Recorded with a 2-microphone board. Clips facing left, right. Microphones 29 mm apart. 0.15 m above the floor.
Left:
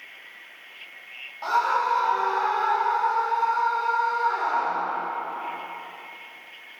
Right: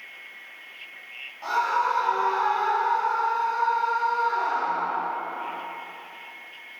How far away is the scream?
About 6 m.